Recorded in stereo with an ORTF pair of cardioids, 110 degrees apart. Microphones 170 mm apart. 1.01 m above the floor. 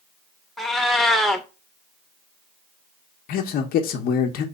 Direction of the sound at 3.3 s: 65° left.